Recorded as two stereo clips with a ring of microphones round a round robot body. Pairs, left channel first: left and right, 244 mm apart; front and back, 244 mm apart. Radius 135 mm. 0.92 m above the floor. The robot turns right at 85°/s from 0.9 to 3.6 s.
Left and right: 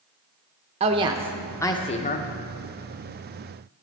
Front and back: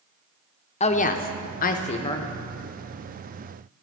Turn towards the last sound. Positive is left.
turn(degrees=-175)